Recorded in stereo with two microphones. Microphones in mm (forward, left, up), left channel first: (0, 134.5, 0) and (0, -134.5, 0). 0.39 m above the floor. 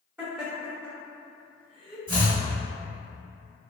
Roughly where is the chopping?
Right.